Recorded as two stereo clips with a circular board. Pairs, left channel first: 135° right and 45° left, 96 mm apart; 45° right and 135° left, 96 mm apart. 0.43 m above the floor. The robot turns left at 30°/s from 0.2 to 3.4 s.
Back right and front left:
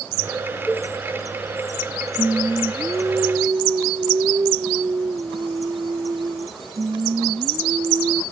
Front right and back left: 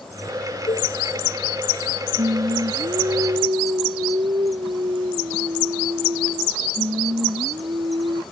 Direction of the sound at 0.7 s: 45° right.